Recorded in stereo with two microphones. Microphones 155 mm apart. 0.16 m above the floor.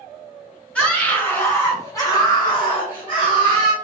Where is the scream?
5° left (ahead or behind), 1.9 m; by 3.7 s 30° left (ahead or behind), 1.7 m.